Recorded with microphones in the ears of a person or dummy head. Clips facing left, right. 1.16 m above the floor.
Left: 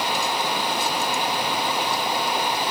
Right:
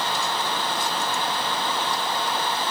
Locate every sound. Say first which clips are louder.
0.0 s running water: left 2 dB; 10° left (ahead or behind), 0.7 m